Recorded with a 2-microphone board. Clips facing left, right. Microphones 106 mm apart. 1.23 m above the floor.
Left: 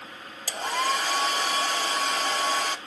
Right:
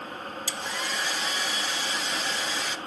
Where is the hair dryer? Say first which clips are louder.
Left 9 dB; 50° left (ahead or behind), 1.0 m.